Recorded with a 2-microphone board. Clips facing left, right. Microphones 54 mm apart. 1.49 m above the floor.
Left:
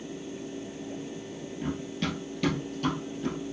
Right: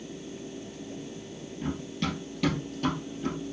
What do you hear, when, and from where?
1.6 s running footsteps: 5° left (ahead or behind), 1.8 m; by 3.4 s 15° right (ahead or behind), 3.5 m